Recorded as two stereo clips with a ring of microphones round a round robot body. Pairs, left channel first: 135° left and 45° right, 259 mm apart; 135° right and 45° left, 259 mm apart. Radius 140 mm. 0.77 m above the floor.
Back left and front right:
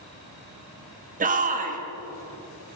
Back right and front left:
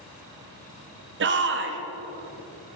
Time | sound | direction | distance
1.2 | a shout | 10° left | 1.6 m